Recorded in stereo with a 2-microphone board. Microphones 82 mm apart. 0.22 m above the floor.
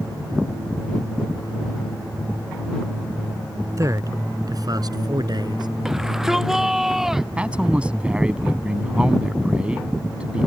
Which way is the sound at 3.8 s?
40° right (ahead or behind).